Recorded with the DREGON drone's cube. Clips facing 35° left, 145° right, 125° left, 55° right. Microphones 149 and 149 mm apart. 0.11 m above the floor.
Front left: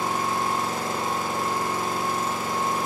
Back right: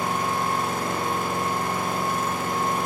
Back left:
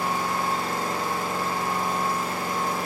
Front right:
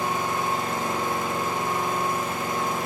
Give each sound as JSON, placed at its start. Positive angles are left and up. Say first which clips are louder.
{"t": 0.0, "sound": "an engine running", "louder": "even, even", "azimuth_deg": -125, "distance_m": 2.5}